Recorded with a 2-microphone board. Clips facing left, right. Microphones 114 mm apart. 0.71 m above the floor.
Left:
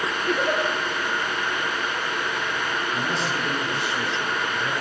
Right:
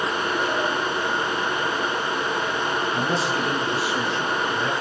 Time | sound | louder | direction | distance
0.3 | a giggle | left 4 dB | 70° left (ahead or behind) | 7 m
2.9 | a man speaking | right 3 dB | 5° right (ahead or behind) | 9 m